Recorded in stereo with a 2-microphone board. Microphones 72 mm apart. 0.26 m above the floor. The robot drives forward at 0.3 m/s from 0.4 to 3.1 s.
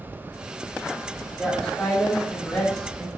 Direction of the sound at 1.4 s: 15° left (ahead or behind).